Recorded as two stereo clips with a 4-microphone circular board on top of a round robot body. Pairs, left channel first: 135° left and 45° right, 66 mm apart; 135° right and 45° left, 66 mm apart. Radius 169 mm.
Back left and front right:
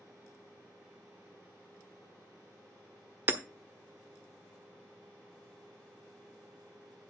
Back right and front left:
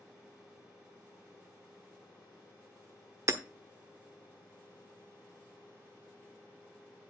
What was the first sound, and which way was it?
Hammering, 10° left.